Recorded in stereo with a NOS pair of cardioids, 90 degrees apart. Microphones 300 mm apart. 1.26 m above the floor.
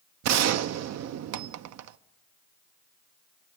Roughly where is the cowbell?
No cowbell in this recording.